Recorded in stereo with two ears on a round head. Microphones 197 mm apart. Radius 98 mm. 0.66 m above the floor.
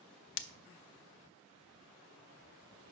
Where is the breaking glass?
60° left (ahead or behind), 0.6 m.